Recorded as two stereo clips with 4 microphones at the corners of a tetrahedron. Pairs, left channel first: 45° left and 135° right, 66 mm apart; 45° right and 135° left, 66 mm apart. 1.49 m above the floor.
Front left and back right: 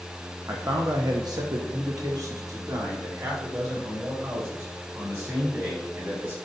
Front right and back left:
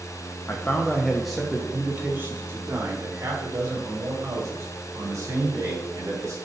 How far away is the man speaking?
About 0.9 m.